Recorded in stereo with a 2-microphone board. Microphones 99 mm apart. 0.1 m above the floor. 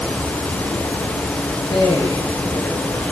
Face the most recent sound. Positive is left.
turn(degrees=55)  # may be behind; listen again after turning